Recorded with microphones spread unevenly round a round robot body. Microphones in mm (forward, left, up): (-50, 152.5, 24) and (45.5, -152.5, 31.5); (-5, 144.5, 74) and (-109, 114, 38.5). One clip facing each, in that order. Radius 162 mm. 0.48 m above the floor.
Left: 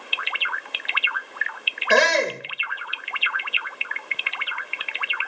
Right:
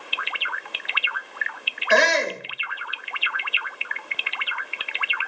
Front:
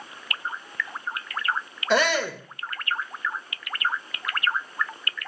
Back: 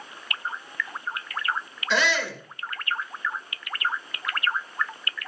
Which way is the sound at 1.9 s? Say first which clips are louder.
Left 1 dB, front 3 dB; 65° left.